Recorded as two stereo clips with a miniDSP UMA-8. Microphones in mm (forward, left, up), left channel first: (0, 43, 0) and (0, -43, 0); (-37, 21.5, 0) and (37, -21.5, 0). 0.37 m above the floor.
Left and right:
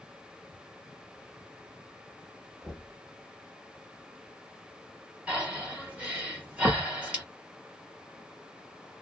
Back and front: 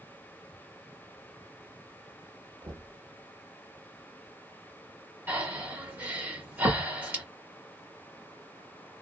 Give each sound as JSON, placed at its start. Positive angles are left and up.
{"t": 2.6, "sound": "knocking", "azimuth_deg": 0, "distance_m": 1.1}
{"t": 5.3, "sound": "breathing", "azimuth_deg": -40, "distance_m": 1.2}